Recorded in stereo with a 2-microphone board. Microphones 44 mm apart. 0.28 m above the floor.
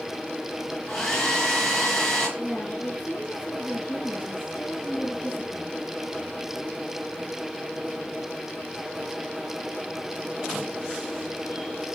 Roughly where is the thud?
No thud in this recording.